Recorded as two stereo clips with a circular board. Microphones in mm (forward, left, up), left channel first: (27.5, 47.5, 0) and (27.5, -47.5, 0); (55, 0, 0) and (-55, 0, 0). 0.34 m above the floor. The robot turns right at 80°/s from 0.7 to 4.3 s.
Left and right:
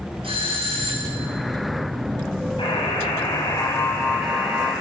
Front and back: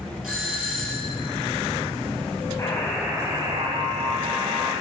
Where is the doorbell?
95° right, 6 m; by 1.3 s 50° right, 6 m.